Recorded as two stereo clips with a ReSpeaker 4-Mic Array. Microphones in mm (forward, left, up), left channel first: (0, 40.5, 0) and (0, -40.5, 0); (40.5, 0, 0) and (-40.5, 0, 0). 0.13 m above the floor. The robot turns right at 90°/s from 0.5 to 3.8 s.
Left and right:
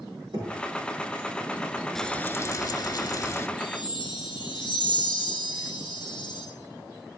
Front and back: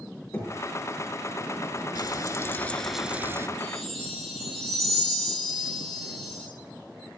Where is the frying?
5° left, 0.6 m; by 3.5 s 140° left, 0.6 m.